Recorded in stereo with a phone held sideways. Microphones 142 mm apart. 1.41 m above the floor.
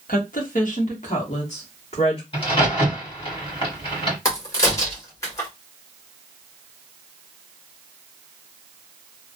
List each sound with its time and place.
0.1 s a woman speaking: 80° left, 1.0 m; by 2.2 s 50° left (ahead or behind), 1.8 m
2.3 s a crack: 40° left (ahead or behind), 2.5 m
4.2 s a crack: 25° left (ahead or behind), 1.7 m